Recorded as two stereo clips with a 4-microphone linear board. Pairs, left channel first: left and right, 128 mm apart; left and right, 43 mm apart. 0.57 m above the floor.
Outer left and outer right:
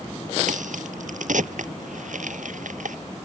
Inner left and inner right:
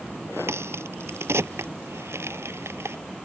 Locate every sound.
0.5 s a crack: 90° right